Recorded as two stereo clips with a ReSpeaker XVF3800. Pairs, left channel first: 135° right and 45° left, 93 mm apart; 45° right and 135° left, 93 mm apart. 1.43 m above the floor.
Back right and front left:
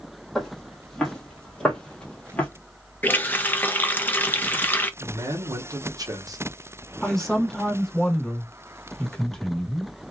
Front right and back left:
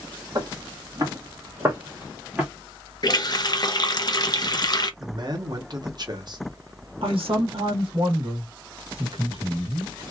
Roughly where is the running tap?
Right.